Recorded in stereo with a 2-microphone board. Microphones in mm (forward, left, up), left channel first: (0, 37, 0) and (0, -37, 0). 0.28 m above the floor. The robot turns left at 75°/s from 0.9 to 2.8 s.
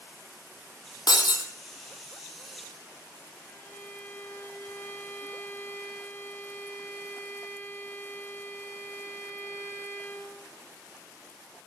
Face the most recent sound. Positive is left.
turn(degrees=30)  # may be behind; listen again after turning